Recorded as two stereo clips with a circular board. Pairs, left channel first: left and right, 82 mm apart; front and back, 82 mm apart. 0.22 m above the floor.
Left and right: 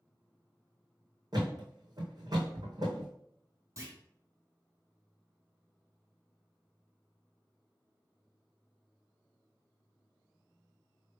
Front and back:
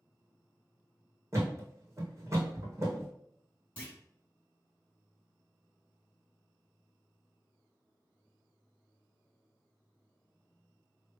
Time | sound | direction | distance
1.3 | a thud | 125° right | 1.9 m
3.8 | a clunk | 65° right | 1.7 m